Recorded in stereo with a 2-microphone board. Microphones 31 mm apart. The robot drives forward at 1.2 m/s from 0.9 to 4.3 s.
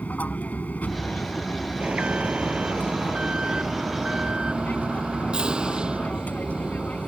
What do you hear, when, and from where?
0.0 s an aircraft: 60° left (ahead or behind)
1.8 s an alarm: 50° right (ahead or behind); by 7.1 s 30° right (ahead or behind)